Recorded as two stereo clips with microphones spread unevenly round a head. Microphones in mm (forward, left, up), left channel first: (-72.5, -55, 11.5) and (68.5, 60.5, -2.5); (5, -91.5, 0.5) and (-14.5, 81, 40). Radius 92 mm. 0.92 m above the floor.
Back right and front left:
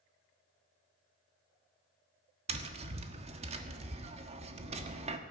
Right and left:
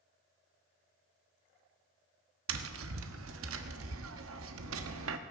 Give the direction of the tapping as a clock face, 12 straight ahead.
9 o'clock.